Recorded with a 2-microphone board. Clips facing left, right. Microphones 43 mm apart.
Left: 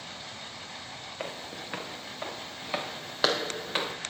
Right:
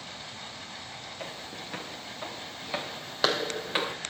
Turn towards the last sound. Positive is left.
turn(degrees=-15)  # may be behind; listen again after turning